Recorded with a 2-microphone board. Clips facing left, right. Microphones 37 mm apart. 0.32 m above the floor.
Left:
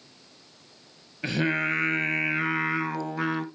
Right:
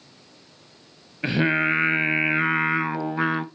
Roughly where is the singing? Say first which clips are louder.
Right 4 dB; right.